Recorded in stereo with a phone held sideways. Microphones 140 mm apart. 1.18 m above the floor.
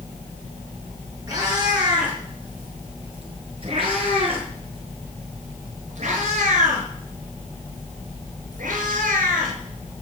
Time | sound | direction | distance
1.3 | a cat meowing | 25° right (ahead or behind) | 6.5 m